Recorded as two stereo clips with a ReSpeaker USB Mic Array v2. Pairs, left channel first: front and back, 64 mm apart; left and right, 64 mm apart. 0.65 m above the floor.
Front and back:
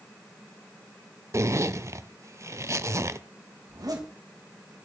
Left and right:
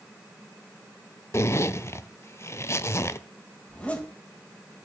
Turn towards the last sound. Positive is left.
turn(degrees=160)